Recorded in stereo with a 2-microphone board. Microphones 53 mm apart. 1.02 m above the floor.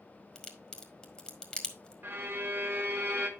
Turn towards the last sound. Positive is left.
turn(degrees=-45)  # may be behind; listen again after turning